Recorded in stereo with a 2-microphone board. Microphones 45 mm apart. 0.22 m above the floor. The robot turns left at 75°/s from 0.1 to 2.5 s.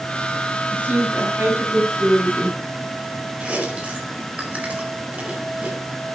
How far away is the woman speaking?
About 7.5 m.